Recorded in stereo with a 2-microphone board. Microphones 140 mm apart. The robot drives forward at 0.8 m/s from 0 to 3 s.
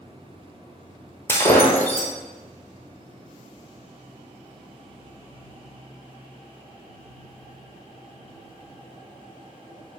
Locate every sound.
1.3 s breaking glass: 20° left (ahead or behind), 1.2 m; by 2.1 s 10° left (ahead or behind), 1.9 m